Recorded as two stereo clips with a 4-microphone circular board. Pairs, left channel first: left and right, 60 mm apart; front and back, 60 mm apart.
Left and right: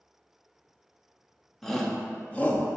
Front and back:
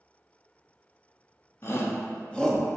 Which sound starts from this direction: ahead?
A shout, at 1.6 s.